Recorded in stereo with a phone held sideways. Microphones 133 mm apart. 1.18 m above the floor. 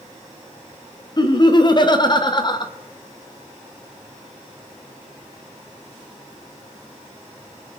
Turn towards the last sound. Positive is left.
turn(degrees=35)  # may be behind; listen again after turning